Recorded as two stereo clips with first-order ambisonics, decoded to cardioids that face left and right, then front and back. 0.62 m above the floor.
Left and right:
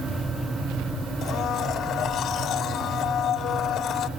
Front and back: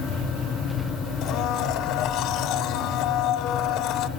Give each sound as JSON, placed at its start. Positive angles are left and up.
{"t": 1.2, "sound": "a blender", "azimuth_deg": 35, "distance_m": 1.2}